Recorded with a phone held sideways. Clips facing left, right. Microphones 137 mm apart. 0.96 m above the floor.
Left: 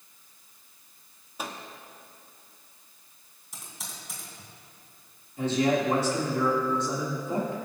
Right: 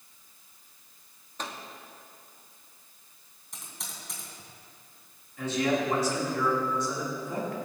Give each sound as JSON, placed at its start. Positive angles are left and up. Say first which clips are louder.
{"t": 1.4, "sound": "a microwave", "louder": "left 1 dB", "side_deg": 10, "distance_m": 1.2}
{"t": 3.5, "sound": "typing on a keyboard", "louder": "left 1 dB", "side_deg": 5, "distance_m": 3.0}
{"t": 5.4, "sound": "a man speaking", "louder": "left 3 dB", "side_deg": 30, "distance_m": 2.5}